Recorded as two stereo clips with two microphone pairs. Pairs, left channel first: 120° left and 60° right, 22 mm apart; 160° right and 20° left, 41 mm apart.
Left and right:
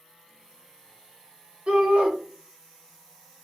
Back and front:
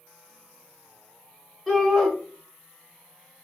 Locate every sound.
1.7 s a shout: 55° right, 1.4 m